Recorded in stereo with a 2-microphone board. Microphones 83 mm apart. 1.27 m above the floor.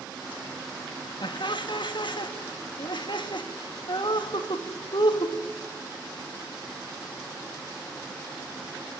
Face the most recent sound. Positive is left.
turn(degrees=70)  # may be behind; listen again after turning